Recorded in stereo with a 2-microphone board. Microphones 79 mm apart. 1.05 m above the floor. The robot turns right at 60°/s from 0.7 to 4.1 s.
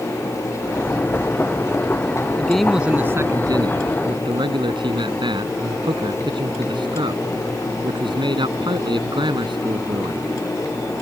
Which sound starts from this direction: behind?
A man speaking, at 2.4 s.